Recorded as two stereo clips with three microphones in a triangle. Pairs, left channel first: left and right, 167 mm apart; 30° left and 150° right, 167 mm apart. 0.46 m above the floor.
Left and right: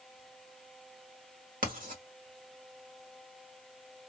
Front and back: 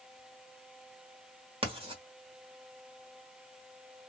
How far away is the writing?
About 1.4 m.